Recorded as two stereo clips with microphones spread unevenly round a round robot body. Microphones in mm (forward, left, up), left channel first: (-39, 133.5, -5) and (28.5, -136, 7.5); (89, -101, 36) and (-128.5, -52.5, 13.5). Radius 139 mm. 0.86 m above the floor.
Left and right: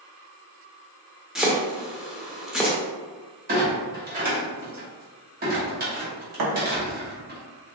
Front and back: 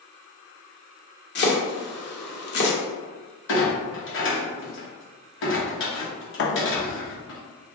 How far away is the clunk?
About 1.3 m.